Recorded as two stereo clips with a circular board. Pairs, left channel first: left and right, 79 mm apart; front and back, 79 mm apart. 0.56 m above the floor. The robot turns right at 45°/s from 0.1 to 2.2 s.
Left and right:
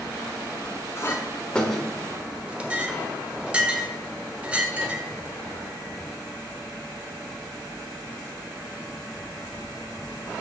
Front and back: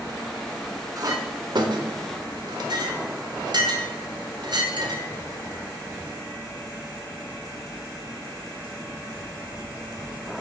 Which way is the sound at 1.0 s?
140° left.